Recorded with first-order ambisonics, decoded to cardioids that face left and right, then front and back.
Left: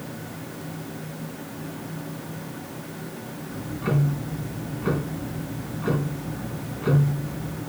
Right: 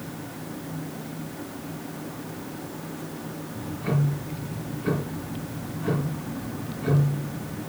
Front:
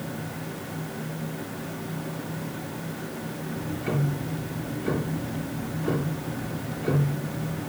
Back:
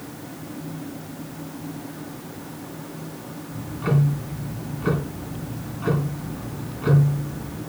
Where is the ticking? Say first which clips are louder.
Left 2 dB, back 4 dB; 155° left, 3 m.